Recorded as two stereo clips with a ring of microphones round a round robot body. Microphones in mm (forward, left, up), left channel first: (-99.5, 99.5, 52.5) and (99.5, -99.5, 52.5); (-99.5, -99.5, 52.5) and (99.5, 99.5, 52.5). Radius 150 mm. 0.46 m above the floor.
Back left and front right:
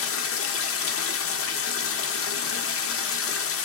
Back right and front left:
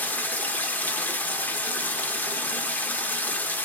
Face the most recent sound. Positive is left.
turn(degrees=145)